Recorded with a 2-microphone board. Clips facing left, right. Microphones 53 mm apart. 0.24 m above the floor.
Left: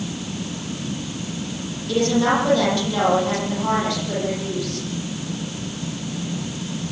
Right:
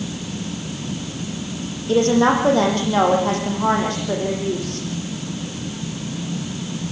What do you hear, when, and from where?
1.9 s a woman speaking: 35° right (ahead or behind), 9 m